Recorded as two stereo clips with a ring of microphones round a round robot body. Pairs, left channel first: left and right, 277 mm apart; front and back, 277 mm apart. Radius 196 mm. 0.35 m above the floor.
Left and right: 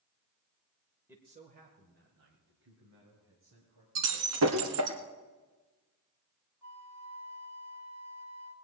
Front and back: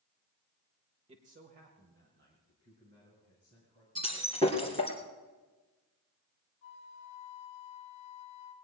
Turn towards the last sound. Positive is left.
turn(degrees=-10)